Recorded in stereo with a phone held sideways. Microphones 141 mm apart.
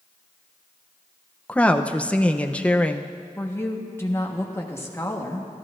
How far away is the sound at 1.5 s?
About 0.6 m.